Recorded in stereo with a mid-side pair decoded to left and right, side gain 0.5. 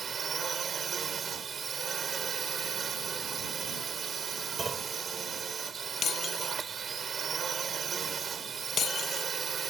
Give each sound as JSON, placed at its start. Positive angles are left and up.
{"t": 0.0, "sound": "a drone", "azimuth_deg": -45}
{"t": 4.6, "sound": "a clunk", "azimuth_deg": -30}
{"t": 6.0, "sound": "breaking glass", "azimuth_deg": 45}